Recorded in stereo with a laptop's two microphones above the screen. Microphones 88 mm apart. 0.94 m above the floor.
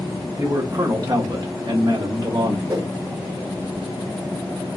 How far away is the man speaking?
About 1.5 m.